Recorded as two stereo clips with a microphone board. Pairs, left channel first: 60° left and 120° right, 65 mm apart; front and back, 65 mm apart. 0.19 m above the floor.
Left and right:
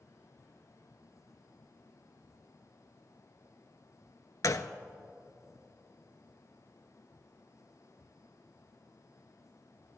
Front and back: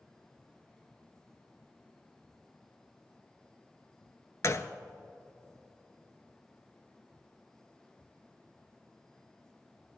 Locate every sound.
4.4 s a gunshot: 35° left, 0.6 m